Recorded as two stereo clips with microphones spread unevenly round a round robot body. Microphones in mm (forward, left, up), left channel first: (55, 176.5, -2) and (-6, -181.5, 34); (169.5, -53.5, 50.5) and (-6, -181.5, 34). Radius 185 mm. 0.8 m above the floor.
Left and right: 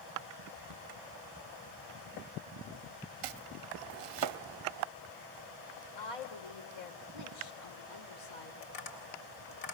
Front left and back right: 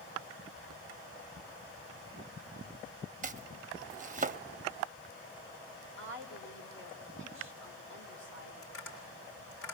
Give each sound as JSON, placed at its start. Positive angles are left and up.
{"t": 3.2, "sound": "chopping", "azimuth_deg": -90, "distance_m": 0.6}
{"t": 6.0, "sound": "a woman speaking", "azimuth_deg": 90, "distance_m": 3.0}
{"t": 8.6, "sound": "tapping", "azimuth_deg": 70, "distance_m": 4.0}